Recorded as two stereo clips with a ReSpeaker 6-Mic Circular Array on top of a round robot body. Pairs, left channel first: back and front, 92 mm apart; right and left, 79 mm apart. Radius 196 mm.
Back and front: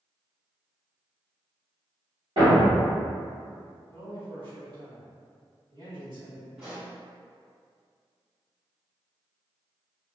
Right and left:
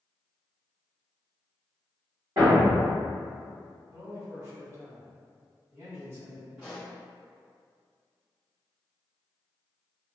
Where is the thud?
35° left, 1.0 m.